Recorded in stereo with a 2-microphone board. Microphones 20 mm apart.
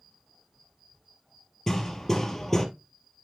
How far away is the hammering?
About 2 m.